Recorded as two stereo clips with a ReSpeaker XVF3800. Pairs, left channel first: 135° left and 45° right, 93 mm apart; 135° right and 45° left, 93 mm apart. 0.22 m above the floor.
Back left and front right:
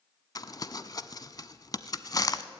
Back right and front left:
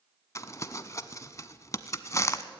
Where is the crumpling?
175° left, 0.8 m.